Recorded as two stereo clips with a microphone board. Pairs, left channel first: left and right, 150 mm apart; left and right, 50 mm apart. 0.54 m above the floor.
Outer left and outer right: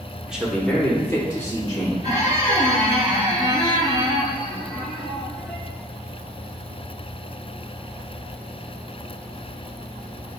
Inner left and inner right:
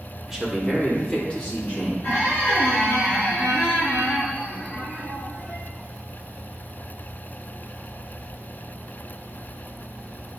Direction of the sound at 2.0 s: 55° left (ahead or behind).